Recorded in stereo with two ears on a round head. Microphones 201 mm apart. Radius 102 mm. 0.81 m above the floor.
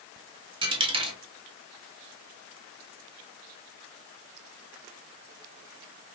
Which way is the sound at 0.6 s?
25° right (ahead or behind).